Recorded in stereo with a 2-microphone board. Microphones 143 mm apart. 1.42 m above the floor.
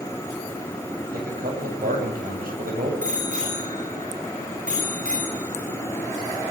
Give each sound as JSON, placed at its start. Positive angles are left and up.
{"t": 1.1, "sound": "a man speaking", "side_deg": -90, "distance_m": 9.5}
{"t": 3.0, "sound": "a bicycle bell", "side_deg": -60, "distance_m": 9.5}